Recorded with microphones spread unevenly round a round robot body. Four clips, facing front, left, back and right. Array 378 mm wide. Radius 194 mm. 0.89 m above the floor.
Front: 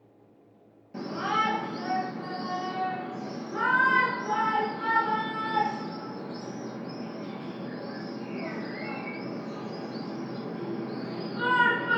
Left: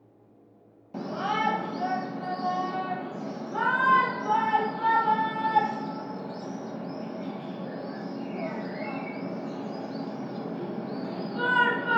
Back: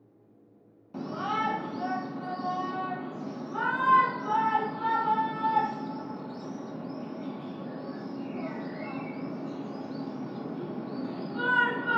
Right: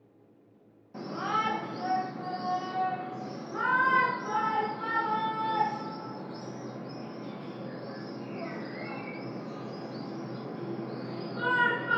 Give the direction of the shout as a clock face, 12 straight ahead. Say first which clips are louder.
Left 3 dB, front 2 dB; 9 o'clock.